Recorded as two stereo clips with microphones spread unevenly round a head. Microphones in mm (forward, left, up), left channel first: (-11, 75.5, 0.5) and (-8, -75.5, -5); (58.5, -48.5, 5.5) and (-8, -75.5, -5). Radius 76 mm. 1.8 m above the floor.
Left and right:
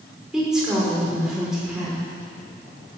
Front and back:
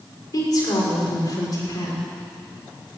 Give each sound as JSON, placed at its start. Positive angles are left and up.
{"t": 0.3, "sound": "a woman speaking", "azimuth_deg": 0, "distance_m": 6.0}